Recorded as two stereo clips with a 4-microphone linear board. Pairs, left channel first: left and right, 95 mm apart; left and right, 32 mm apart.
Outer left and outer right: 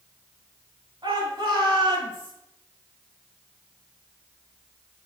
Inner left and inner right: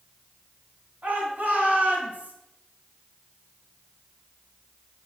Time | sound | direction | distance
1.0 | a shout | 50° right (ahead or behind) | 5 m